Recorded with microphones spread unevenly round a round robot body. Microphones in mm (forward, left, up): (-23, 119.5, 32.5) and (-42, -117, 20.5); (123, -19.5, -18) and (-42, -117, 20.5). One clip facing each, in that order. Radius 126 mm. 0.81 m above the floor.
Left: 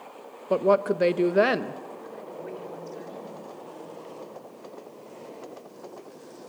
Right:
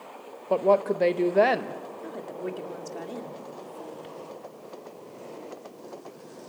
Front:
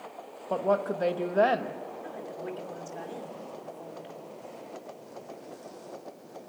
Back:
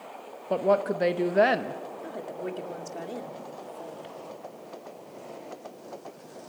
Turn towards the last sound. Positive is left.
turn(degrees=-105)